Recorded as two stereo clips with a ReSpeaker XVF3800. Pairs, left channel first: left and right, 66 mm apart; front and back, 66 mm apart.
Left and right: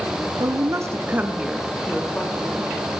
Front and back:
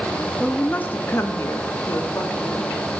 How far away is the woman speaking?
About 1.8 m.